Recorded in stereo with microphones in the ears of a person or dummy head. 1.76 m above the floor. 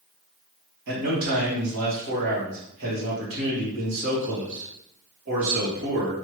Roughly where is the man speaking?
Right.